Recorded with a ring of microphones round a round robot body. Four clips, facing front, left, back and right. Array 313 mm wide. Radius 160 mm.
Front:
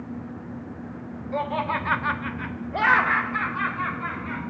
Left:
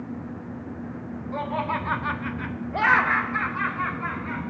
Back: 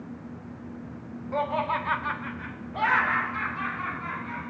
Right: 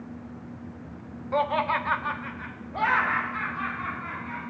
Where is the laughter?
95° right, 1.1 m; by 4.4 s 60° left, 3 m.